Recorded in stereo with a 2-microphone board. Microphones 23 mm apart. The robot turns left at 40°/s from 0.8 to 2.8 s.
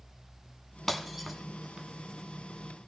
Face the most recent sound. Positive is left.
turn(degrees=-65)  # may be behind; listen again after turning